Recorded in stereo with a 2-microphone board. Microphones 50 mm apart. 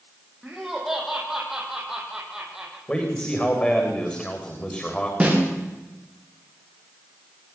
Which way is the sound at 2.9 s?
20° left (ahead or behind).